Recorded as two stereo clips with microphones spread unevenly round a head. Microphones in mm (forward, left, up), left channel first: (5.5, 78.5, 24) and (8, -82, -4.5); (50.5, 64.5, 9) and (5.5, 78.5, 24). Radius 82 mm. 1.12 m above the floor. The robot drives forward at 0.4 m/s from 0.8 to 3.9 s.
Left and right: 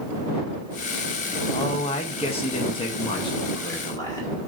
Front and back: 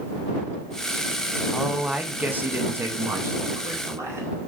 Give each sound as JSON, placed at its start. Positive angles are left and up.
{"t": 1.5, "sound": "a man speaking", "azimuth_deg": 50, "distance_m": 0.7}